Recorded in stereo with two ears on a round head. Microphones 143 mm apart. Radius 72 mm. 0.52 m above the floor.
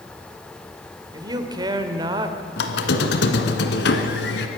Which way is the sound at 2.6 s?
75° left (ahead or behind).